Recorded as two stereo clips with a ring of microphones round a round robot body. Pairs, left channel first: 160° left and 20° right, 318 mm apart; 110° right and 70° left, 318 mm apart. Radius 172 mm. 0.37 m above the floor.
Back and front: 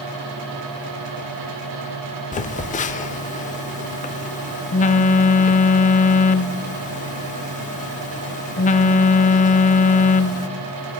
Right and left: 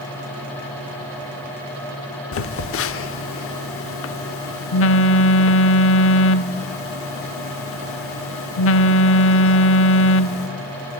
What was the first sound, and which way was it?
A phone buzzing, 145° right.